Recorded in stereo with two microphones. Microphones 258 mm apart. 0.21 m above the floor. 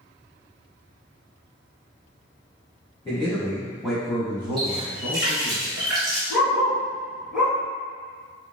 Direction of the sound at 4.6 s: 65° right (ahead or behind).